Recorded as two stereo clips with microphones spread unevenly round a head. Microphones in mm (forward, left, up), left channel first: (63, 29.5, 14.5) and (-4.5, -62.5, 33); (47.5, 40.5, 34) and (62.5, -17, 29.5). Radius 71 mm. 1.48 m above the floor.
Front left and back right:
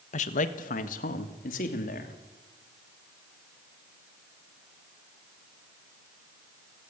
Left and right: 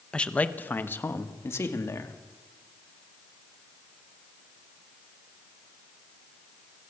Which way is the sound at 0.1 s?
30° left.